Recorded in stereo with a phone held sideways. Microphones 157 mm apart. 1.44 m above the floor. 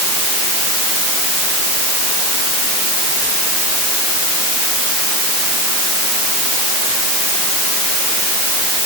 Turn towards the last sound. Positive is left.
No sound to turn to.